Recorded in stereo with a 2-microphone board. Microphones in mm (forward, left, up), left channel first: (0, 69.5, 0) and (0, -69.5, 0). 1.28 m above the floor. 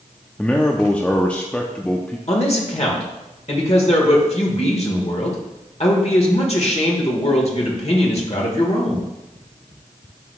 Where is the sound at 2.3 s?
50° left (ahead or behind), 1.4 m.